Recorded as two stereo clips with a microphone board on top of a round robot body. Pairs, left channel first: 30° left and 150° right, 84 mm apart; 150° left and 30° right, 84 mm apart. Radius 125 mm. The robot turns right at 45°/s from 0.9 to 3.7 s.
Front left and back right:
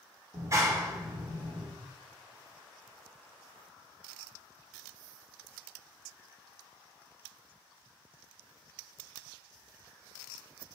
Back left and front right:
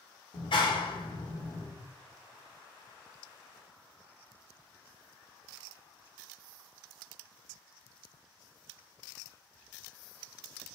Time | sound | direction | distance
0.3 | a clap | 155° left | 2.0 m